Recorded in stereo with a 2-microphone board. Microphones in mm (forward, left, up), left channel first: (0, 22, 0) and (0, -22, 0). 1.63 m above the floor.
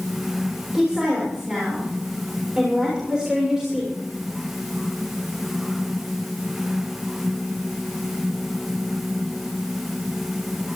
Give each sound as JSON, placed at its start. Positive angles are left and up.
{"t": 0.7, "sound": "a woman speaking", "side_deg": -15, "distance_m": 7.0}